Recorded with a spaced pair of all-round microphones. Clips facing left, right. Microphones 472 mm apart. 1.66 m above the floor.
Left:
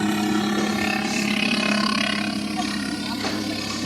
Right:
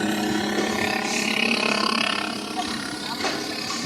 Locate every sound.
0.0 s a helicopter: 20° left (ahead or behind); by 3.9 s 55° left (ahead or behind)